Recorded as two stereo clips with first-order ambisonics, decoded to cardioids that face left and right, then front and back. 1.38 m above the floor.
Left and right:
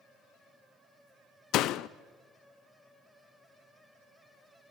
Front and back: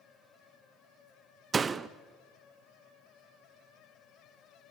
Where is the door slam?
110° left, 0.6 m.